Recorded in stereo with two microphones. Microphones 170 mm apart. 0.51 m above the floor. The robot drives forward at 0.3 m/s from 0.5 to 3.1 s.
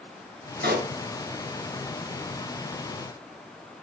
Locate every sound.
0.6 s a pop: 80° right, 3 m